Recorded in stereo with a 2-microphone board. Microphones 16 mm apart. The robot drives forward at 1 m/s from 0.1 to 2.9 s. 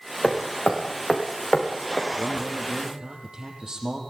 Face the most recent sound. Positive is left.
turn(degrees=-40)  # may be behind; listen again after turning